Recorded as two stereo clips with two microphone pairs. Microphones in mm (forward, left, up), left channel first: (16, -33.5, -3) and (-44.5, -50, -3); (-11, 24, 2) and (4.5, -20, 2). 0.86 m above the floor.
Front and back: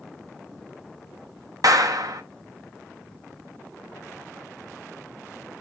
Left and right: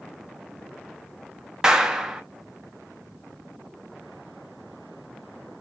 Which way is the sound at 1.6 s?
145° right.